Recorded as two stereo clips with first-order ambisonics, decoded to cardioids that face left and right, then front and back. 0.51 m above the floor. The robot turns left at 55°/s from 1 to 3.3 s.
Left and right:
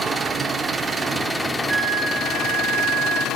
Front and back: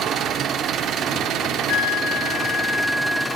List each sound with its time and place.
0.0 s an engine running: 160° right, 0.8 m; by 3.4 s 75° left, 0.8 m
1.7 s a flute: 20° right, 1.0 m; by 3.3 s 105° right, 1.0 m